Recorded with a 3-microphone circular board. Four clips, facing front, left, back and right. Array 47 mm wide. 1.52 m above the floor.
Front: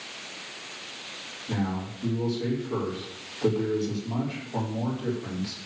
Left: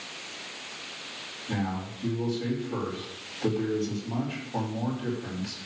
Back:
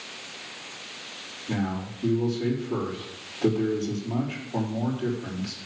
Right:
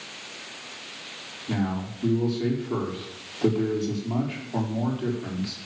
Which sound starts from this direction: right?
A man speaking, at 1.5 s.